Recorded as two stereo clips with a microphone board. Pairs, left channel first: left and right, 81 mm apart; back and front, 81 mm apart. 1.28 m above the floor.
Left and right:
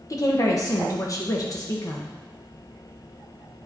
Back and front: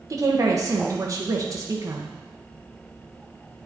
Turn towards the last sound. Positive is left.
turn(degrees=45)